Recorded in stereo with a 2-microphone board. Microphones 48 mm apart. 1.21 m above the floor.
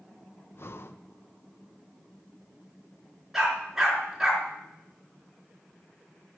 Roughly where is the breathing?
Left.